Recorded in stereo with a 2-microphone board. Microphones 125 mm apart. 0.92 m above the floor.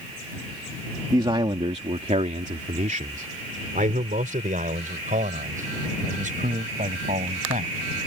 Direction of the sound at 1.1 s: 35° right (ahead or behind).